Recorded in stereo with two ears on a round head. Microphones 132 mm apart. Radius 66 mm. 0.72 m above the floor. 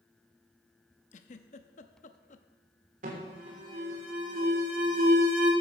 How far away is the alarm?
About 3 m.